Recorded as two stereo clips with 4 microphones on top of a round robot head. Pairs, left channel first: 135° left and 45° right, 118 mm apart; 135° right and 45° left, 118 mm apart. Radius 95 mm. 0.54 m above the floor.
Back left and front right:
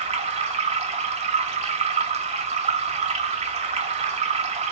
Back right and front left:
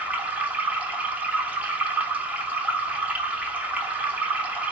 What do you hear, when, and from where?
0.0 s running water: 30° right, 1.0 m